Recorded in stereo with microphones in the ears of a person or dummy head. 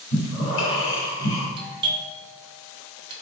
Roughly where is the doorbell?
Right.